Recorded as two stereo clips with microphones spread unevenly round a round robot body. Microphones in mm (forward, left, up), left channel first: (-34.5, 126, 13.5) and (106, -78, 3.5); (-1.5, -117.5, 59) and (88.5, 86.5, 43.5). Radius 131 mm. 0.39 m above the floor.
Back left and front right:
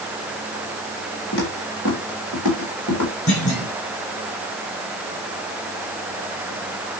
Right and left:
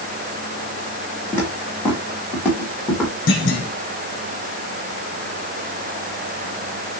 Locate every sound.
1.3 s footsteps: 170° left, 5 m; by 3.2 s 160° left, 4.5 m
3.3 s a clunk: 170° right, 6.5 m